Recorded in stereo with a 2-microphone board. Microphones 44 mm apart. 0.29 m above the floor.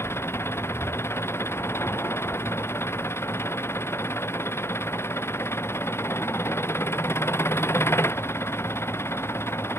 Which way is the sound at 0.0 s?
75° left (ahead or behind).